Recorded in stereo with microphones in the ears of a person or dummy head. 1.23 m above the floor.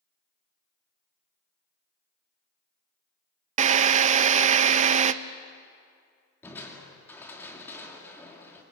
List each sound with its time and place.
3.6 s a drill: 45° right (ahead or behind), 0.6 m
6.4 s crushing: 15° left (ahead or behind), 2.5 m